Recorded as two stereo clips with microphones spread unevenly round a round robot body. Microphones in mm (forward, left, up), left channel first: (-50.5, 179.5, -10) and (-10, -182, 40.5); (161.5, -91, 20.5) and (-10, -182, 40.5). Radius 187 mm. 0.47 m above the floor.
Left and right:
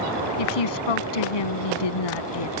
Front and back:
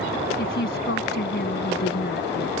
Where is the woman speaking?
85° left.